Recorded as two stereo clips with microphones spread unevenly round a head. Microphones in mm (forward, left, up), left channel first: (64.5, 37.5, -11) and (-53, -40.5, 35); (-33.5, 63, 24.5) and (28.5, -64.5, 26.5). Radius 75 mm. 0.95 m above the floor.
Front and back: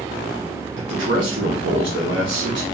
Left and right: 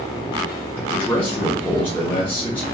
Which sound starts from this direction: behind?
A man speaking, at 0.8 s.